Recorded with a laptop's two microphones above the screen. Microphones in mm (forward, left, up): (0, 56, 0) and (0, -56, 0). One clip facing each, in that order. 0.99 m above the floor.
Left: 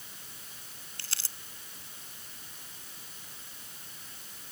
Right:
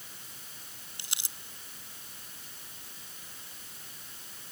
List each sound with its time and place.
1.0 s crumpling: 15° right (ahead or behind)